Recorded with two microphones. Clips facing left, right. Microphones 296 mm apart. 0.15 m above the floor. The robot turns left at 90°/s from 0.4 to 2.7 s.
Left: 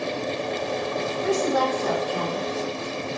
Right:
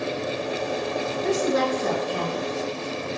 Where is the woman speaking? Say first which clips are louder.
Even; straight ahead, 1.7 m; by 2.5 s 115° right, 1.7 m.